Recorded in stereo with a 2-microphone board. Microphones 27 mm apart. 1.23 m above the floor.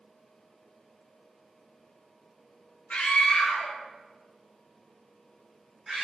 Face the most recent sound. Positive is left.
turn(degrees=-10)  # may be behind; listen again after turning